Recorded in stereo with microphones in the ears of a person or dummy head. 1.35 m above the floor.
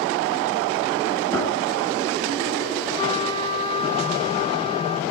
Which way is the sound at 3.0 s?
30° left (ahead or behind).